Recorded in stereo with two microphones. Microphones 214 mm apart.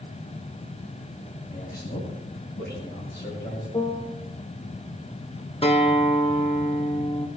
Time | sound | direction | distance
1.5 | a man speaking | 45° left (ahead or behind) | 9.5 m
3.7 | a piano | 15° left (ahead or behind) | 1.3 m
5.6 | a guitar | 25° left (ahead or behind) | 1.7 m